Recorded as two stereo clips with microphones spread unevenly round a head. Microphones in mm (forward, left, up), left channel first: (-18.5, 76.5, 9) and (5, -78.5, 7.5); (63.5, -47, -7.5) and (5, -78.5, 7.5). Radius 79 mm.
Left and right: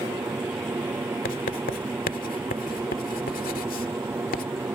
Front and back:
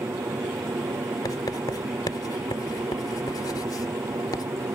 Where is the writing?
75° left.